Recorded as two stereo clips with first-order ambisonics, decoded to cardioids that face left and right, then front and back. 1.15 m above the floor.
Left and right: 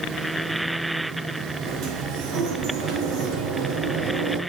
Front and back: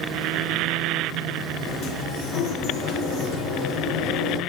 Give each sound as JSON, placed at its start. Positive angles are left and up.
{"t": 1.6, "sound": "a sliding door", "azimuth_deg": -50, "distance_m": 4.5}